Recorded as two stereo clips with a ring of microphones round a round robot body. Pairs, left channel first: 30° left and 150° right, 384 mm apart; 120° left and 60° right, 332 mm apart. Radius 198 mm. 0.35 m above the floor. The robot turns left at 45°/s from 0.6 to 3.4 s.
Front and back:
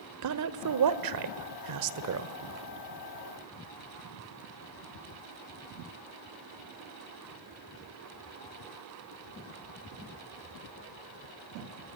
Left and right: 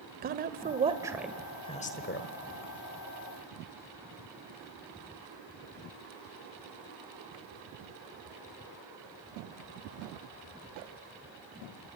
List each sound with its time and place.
0.2 s a woman speaking: 120° right, 1.3 m; by 2.4 s 160° left, 1.3 m